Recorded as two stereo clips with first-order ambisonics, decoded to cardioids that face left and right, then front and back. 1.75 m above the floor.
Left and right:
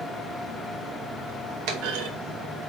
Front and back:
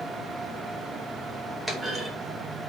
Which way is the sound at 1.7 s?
85° right.